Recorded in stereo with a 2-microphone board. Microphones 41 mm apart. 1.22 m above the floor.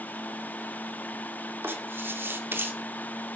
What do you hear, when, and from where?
1.6 s writing: 65° right (ahead or behind), 2.5 m